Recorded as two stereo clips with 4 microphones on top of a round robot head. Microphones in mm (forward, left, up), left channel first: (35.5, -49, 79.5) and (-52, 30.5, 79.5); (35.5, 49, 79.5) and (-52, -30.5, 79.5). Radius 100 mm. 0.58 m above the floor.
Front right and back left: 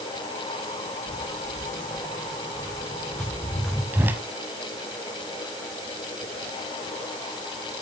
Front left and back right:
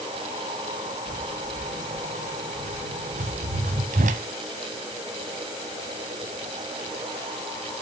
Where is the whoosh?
150° right, 0.6 m.